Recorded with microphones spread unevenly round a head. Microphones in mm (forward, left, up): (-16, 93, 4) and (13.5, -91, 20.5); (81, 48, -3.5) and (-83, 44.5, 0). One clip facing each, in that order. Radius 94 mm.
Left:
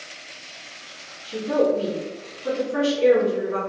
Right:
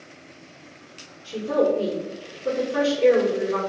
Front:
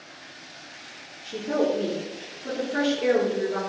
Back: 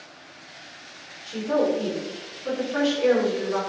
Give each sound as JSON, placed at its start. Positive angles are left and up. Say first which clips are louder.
{"t": 1.2, "sound": "a woman speaking", "louder": "left 1 dB, back 2 dB", "azimuth_deg": 55, "distance_m": 1.7}